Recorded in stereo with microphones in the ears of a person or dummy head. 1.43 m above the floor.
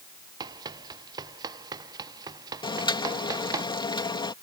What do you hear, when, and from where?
0.4 s running footsteps: 20° right (ahead or behind); by 3.6 s 15° right (ahead or behind)
2.6 s boiling: 25° left (ahead or behind)